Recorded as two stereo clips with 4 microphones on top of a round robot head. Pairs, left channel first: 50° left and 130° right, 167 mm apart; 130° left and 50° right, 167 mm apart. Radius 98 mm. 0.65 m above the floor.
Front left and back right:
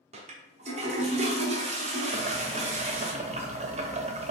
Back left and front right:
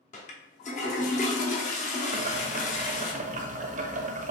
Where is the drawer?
No drawer in this recording.